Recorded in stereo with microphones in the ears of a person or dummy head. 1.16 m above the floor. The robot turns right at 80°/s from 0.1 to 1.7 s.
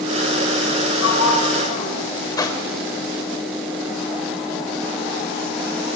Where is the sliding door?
85° left, 5 m; by 2.0 s 140° left, 5 m.